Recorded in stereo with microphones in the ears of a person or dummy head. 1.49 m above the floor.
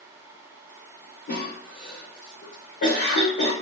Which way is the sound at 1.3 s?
50° left (ahead or behind).